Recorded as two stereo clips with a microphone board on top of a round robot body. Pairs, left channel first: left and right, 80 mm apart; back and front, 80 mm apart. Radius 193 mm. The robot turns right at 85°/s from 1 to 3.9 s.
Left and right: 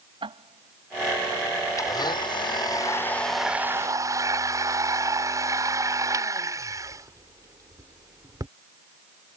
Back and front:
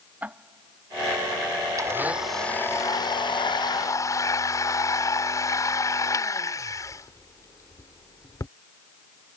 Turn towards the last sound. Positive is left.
turn(degrees=-135)